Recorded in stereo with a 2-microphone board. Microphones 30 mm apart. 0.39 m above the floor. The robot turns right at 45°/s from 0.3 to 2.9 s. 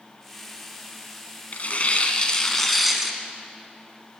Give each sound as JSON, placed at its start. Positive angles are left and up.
{"t": 1.5, "sound": "tearing paper", "azimuth_deg": 115, "distance_m": 1.4}